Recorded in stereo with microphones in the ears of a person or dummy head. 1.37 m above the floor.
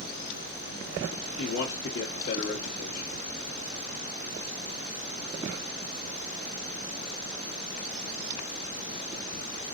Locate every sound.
1.4 s a man speaking: 80° left, 1.4 m